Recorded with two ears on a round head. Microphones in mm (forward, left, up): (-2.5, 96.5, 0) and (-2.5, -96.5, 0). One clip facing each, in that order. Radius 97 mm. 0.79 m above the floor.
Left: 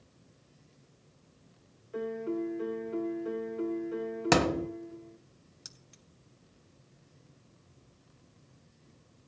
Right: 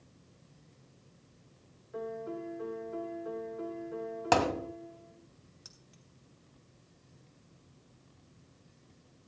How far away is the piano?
About 1.0 m.